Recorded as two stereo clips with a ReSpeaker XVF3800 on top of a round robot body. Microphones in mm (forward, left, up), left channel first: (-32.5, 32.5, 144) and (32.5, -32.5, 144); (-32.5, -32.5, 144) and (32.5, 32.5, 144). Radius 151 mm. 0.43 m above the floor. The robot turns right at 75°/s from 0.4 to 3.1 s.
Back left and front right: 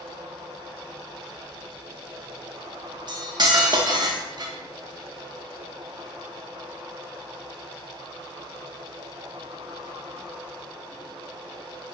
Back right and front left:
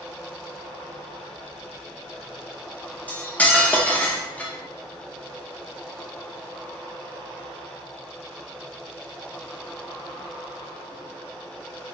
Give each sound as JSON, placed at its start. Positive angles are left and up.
{"t": 3.1, "sound": "cutlery clinking", "azimuth_deg": -65, "distance_m": 0.7}